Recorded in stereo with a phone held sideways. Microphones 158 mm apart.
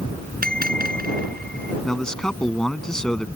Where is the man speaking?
5° left (ahead or behind).